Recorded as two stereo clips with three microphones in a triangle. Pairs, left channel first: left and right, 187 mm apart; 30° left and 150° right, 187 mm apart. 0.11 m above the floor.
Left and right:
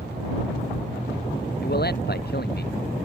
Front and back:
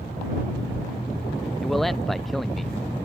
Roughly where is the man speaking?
Behind left.